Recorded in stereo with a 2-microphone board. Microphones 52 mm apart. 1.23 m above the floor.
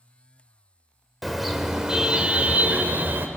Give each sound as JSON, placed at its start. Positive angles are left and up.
{"t": 1.2, "sound": "a car horn", "side_deg": 0, "distance_m": 2.0}